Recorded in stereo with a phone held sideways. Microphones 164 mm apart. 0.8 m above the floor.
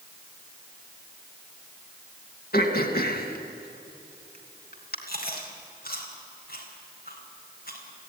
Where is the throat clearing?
70° left (ahead or behind), 2.5 m.